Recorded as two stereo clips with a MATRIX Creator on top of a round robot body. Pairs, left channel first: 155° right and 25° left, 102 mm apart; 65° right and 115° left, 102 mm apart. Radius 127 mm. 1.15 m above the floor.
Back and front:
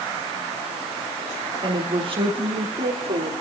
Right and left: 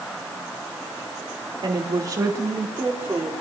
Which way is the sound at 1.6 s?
65° left.